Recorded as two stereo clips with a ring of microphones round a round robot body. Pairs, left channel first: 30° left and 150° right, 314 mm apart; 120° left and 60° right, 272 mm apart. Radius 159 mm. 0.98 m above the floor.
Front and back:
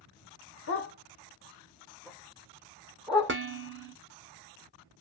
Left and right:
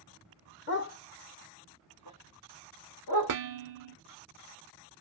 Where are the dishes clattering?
95° right, 0.6 m.